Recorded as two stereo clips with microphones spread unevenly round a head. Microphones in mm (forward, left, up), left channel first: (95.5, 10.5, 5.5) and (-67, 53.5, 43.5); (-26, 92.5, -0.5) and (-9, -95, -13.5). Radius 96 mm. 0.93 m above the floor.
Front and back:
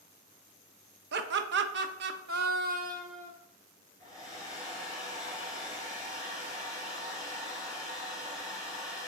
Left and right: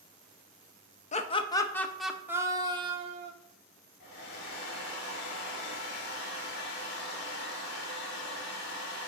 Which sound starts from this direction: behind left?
Laughter, at 1.1 s.